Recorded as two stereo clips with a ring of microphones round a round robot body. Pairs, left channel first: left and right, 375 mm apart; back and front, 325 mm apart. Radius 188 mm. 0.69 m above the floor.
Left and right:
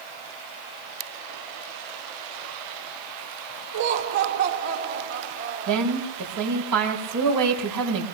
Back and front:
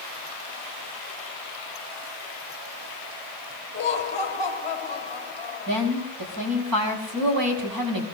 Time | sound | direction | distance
3.7 | laughter | 105° right | 2 m
5.7 | a woman speaking | 45° right | 5.5 m